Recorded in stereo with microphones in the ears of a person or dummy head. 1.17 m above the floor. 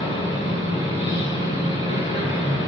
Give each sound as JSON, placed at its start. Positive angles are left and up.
{"t": 0.0, "sound": "a machine running", "side_deg": 30, "distance_m": 1.6}